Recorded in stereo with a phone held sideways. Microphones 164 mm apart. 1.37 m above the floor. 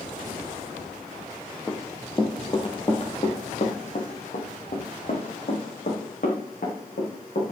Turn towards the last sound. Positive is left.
turn(degrees=70)  # may be behind; listen again after turning